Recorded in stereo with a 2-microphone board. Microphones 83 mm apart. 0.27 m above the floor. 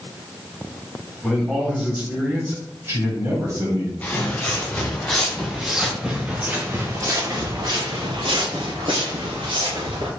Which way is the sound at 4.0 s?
15° left (ahead or behind).